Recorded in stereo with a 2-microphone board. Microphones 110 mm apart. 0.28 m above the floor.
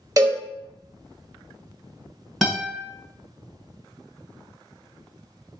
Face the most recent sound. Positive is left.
turn(degrees=0)  # may be behind; listen again after turning